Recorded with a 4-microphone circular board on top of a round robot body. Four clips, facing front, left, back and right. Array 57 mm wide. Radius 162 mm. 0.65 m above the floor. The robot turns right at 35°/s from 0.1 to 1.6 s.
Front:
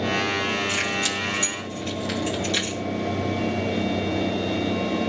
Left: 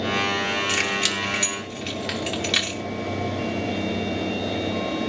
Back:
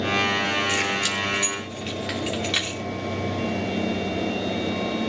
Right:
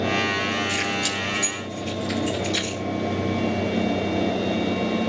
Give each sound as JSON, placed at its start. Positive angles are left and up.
{"t": 0.7, "sound": "keys jangling", "azimuth_deg": 85, "distance_m": 5.0}